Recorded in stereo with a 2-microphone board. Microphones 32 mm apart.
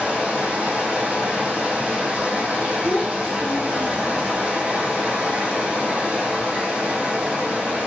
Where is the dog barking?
I don't hear a dog barking.